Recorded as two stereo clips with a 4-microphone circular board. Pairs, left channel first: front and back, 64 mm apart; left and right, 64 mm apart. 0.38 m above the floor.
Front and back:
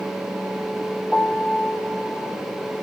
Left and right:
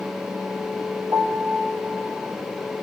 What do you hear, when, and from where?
1.1 s a piano: 100° right, 3 m